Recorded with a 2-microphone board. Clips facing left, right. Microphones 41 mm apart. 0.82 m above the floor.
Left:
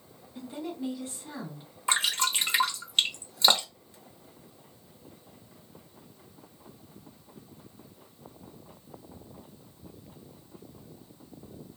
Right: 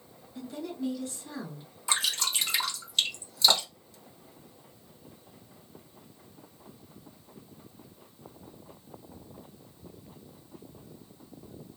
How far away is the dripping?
About 0.9 m.